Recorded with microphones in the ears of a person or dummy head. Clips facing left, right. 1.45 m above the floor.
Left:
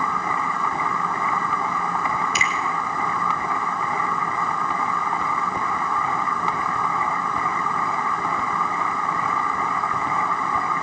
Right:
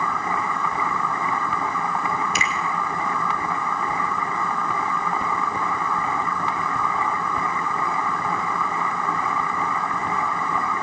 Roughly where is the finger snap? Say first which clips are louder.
Even; right.